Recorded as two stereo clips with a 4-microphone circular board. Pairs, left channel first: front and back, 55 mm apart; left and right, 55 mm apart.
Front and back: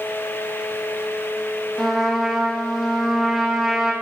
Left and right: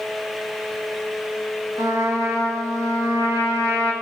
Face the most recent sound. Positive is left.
turn(degrees=-95)